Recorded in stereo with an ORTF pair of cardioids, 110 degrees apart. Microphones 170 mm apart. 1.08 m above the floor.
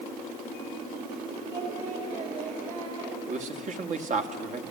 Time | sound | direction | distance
1.5 | singing | 50° right | 5 m
3.3 | a man speaking | 50° right | 1.8 m